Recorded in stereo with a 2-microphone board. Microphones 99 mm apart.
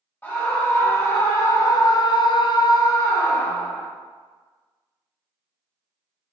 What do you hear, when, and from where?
0.2 s a scream: 20° left (ahead or behind), 1.6 m; by 3.9 s 15° left (ahead or behind), 1.1 m